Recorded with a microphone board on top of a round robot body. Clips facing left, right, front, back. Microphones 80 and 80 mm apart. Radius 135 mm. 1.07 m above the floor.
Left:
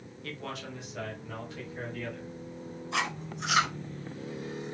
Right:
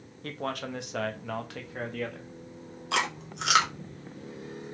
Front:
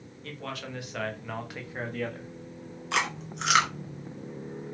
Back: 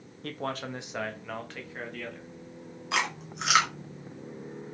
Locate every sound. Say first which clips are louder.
0.2 s a man speaking: right 6 dB, back 4 dB; 140° right, 1.6 m; by 2.3 s 55° right, 2.5 m
2.9 s chewing: right 3 dB, front 1 dB; 90° right, 2.5 m